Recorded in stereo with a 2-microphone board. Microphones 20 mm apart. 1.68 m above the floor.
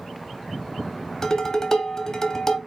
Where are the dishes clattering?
30° left (ahead or behind), 0.8 m.